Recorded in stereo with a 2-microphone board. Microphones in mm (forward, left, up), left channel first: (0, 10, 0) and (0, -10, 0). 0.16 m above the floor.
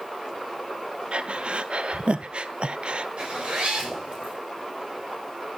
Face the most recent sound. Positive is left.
turn(degrees=-65)  # may be behind; listen again after turning